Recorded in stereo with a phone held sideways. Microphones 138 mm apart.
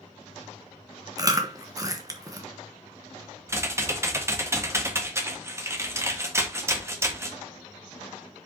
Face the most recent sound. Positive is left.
turn(degrees=-20)  # may be behind; listen again after turning